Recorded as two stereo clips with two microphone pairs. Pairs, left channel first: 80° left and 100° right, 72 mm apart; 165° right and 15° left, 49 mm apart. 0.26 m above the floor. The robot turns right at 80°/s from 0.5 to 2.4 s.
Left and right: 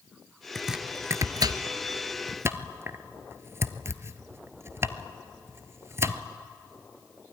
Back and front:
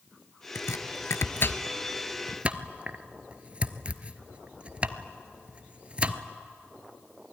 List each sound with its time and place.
0.6 s chopping: 165° left, 0.9 m; by 6.2 s 50° right, 0.9 m